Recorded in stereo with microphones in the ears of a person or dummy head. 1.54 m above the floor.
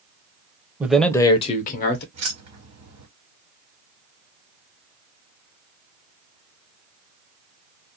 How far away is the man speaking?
About 0.6 m.